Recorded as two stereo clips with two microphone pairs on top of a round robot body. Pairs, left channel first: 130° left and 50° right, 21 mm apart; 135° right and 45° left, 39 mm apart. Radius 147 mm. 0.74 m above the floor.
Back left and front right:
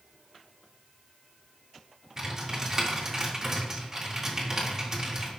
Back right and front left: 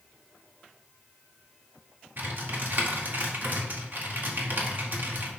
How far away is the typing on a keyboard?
About 1.9 m.